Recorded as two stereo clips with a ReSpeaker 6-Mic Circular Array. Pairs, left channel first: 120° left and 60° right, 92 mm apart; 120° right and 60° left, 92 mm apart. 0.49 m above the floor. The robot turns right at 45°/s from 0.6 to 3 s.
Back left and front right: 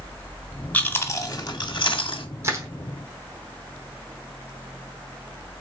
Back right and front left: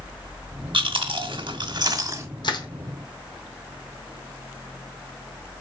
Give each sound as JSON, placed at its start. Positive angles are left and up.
{"t": 0.7, "sound": "chewing", "azimuth_deg": 50, "distance_m": 0.9}
{"t": 2.4, "sound": "crushing", "azimuth_deg": -115, "distance_m": 0.9}